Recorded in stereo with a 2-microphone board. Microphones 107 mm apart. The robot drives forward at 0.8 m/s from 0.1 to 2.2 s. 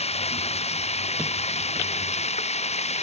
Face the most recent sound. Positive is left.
turn(degrees=85)